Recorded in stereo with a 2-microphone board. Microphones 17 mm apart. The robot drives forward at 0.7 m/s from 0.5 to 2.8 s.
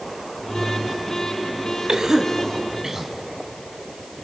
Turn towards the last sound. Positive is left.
turn(degrees=-40)  # may be behind; listen again after turning